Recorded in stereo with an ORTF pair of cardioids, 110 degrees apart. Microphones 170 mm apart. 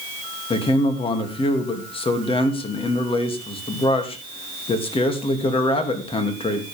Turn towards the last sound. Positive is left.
turn(degrees=35)